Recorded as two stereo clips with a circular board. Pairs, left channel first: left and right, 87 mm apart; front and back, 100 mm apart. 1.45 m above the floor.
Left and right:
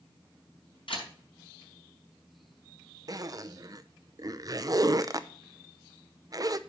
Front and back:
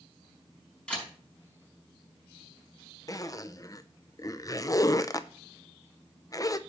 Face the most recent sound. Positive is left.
turn(degrees=-50)